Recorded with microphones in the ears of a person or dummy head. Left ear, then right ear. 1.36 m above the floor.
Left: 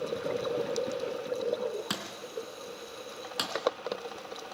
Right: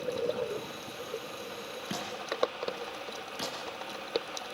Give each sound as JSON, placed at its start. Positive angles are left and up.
{"t": 1.9, "sound": "a thud", "side_deg": 40, "distance_m": 4.0}